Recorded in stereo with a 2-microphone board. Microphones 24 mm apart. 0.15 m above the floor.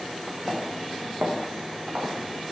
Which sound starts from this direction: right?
Footsteps, at 0.5 s.